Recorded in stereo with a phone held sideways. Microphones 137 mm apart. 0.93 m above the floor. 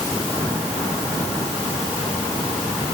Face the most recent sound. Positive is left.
No sound to turn to.